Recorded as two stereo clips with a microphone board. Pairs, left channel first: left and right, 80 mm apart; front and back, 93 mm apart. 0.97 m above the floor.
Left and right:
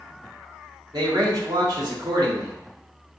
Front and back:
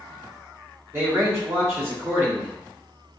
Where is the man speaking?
120° right, 1.9 m.